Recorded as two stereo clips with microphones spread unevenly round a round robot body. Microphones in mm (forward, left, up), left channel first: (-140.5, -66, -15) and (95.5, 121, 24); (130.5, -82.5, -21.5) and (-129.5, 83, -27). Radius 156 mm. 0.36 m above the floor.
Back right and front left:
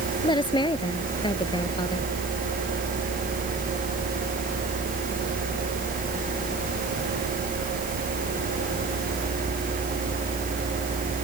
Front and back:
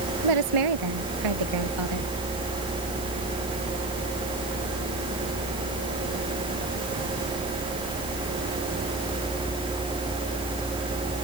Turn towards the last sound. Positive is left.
turn(degrees=145)